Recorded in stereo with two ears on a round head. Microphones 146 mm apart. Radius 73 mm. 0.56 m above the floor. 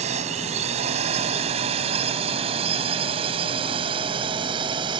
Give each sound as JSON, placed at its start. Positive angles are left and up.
{"t": 0.0, "sound": "a drone", "side_deg": -40}